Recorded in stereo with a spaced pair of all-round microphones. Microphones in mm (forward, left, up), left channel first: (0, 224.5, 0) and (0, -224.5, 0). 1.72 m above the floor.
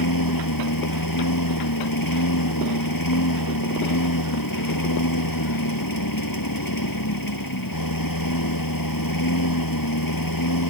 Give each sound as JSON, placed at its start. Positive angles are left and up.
{"t": 0.0, "sound": "a lawn mower", "side_deg": 50}